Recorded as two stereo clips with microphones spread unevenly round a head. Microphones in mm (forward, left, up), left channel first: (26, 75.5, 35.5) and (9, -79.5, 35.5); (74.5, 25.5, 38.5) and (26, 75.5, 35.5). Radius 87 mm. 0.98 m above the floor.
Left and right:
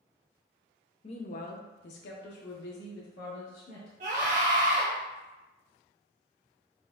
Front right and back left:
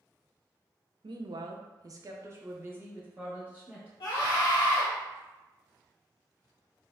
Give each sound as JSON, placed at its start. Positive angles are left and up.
{"t": 1.0, "sound": "a woman speaking", "azimuth_deg": 140, "distance_m": 0.5}
{"t": 4.0, "sound": "a scream", "azimuth_deg": -55, "distance_m": 1.6}